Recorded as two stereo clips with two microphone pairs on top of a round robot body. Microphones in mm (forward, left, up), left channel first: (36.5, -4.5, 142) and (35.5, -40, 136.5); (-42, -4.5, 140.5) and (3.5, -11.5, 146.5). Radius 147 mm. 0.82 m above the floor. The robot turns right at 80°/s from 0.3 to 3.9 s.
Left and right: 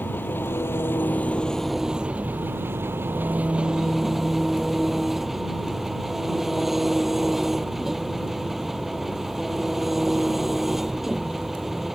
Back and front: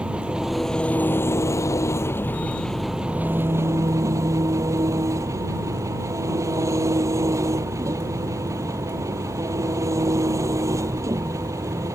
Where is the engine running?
65° left; by 11.9 s 10° right.